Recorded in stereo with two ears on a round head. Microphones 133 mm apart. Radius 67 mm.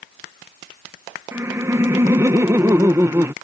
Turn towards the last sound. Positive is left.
turn(degrees=-15)  # may be behind; listen again after turning